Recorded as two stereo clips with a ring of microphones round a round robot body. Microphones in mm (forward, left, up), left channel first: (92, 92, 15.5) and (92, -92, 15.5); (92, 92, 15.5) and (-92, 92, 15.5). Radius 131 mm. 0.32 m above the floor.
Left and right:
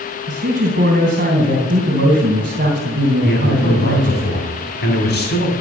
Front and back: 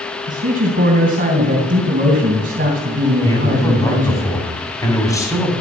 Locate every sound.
0.3 s a man speaking: 135° right, 2.5 m
3.2 s a man speaking: 70° left, 3.5 m